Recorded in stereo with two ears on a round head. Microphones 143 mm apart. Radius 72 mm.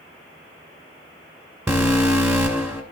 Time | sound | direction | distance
1.7 | an alarm | 15° right (ahead or behind) | 3 m